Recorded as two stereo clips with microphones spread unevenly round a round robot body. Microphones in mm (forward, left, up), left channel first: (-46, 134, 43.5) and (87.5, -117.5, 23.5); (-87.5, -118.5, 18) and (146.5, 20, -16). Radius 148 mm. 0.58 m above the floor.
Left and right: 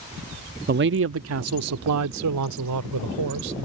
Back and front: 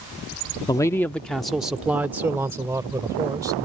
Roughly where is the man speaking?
Right.